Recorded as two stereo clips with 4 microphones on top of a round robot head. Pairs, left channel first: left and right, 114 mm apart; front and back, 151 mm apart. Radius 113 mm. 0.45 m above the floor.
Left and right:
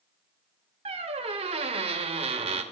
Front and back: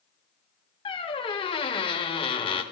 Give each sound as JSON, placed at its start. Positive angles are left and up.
{"t": 0.8, "sound": "a squeak", "azimuth_deg": -60, "distance_m": 0.8}